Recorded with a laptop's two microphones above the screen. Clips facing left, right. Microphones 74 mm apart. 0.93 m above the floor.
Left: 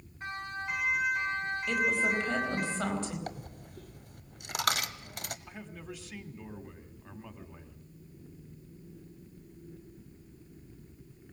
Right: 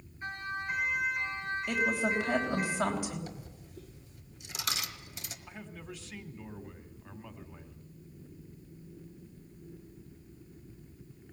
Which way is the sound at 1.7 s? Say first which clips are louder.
Left 1 dB; 10° right (ahead or behind).